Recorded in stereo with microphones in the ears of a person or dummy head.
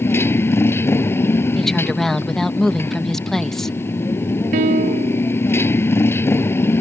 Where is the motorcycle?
15° left (ahead or behind).